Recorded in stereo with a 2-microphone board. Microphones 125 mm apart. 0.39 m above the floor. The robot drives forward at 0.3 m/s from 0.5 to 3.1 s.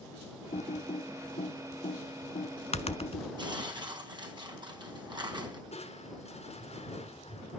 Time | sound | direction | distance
0.5 | typing on a keyboard | 75° left (ahead or behind) | 0.8 m
3.4 | tearing paper | 40° right (ahead or behind) | 3.5 m
5.7 | crushing | 60° left (ahead or behind) | 3.5 m